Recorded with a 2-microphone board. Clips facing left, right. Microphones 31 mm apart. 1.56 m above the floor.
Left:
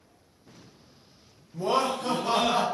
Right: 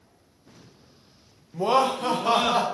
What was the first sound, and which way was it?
Laughter, 55° right (ahead or behind).